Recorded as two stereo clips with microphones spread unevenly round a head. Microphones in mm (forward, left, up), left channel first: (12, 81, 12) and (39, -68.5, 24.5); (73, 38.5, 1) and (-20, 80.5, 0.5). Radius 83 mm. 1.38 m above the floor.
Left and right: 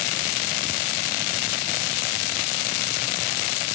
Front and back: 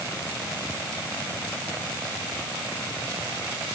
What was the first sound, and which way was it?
Only background noise.